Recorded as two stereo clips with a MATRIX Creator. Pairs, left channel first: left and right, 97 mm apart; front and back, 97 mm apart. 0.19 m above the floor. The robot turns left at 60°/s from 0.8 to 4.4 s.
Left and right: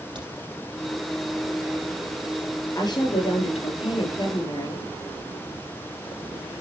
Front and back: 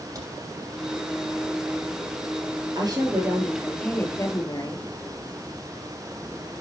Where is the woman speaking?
140° left, 4 m; by 4.8 s 45° left, 4 m.